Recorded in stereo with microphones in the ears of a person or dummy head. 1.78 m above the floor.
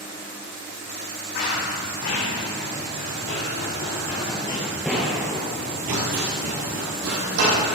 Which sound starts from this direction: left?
Running footsteps, at 1.4 s.